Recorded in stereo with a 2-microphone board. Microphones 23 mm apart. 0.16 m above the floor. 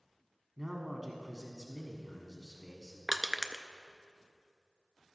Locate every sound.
0.6 s a man speaking: 10° right (ahead or behind), 1.1 m
3.1 s crushing: 10° right (ahead or behind), 0.5 m